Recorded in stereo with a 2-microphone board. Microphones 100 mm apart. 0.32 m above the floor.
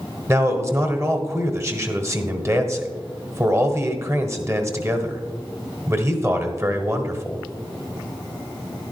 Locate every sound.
0.3 s a man speaking: 30° right (ahead or behind), 1.2 m